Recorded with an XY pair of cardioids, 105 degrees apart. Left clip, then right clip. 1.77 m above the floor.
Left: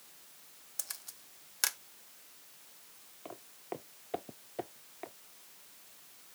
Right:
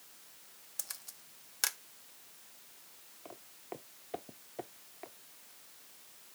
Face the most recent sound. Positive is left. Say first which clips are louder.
# left 4 dB
turn(degrees=25)